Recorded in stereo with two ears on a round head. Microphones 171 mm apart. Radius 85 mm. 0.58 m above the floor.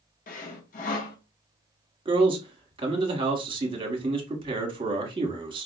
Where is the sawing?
45° left (ahead or behind), 0.7 m.